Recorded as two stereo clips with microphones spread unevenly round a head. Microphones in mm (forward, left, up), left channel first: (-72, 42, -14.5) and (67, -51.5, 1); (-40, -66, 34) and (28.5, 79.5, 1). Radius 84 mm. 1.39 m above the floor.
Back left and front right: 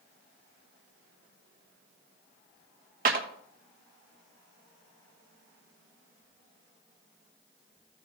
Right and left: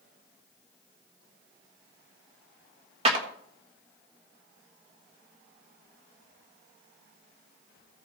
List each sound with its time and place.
3.0 s a clap: 10° left, 1.4 m